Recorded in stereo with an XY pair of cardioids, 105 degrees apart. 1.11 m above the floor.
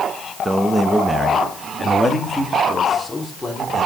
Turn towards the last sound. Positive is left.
turn(degrees=15)